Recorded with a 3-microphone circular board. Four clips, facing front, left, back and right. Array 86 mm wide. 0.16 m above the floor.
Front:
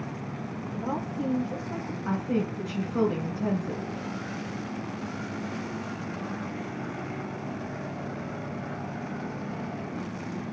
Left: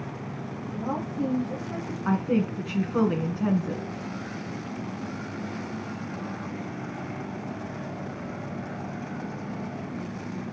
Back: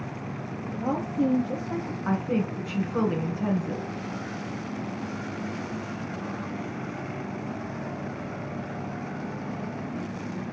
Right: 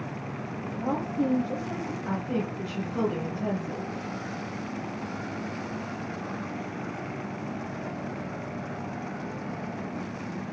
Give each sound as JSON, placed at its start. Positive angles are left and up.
{"t": 0.7, "sound": "a woman speaking", "azimuth_deg": -150, "distance_m": 4.0}
{"t": 2.0, "sound": "a woman speaking", "azimuth_deg": 120, "distance_m": 2.0}